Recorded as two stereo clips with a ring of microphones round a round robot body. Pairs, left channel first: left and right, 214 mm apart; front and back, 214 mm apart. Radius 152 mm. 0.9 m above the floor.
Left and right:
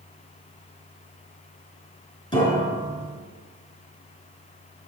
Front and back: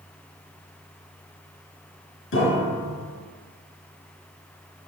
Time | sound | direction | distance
2.3 | a piano | 25° left | 4 m